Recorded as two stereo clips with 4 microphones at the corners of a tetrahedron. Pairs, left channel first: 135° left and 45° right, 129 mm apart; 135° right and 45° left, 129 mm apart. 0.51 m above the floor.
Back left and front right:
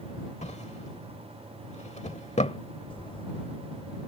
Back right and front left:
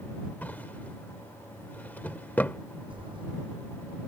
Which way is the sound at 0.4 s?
150° left.